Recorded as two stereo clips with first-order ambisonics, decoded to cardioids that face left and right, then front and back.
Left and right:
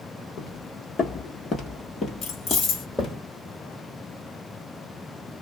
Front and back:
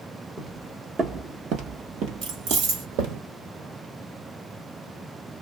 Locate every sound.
0.4 s footsteps: 105° left, 0.9 m; by 3.2 s 170° left, 1.8 m
2.2 s keys jangling: 145° left, 1.3 m